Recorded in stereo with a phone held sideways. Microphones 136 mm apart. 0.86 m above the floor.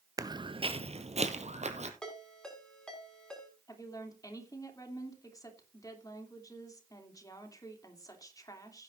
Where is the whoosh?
I don't hear a whoosh.